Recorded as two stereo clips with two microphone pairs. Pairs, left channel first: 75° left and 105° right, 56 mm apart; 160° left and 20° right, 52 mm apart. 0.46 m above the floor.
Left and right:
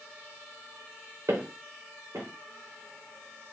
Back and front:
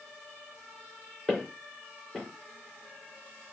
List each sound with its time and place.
1.3 s footsteps: 115° right, 3.5 m